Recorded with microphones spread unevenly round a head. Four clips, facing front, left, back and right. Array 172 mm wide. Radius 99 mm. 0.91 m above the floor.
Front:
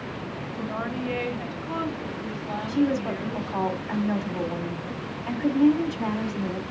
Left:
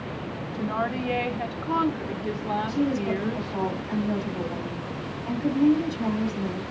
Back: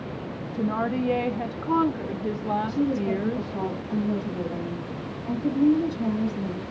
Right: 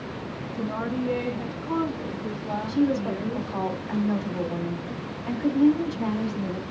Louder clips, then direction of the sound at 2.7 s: Right 4 dB, front 5 dB; 20° right.